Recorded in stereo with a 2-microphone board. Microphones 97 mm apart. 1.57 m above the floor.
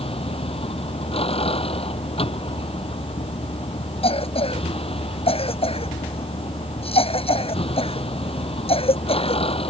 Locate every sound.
0.0 s a vehicle: 80° left
4.0 s a cough: 85° left